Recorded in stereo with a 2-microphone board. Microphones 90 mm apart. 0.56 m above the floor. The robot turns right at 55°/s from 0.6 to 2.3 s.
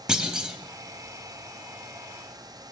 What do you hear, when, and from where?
0.1 s a clunk: 10° right (ahead or behind), 0.9 m